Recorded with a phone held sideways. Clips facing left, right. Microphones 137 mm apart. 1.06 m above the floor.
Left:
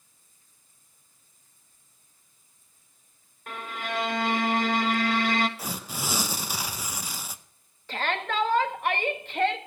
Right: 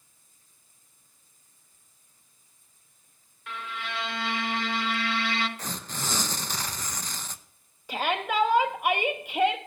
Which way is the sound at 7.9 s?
10° right (ahead or behind).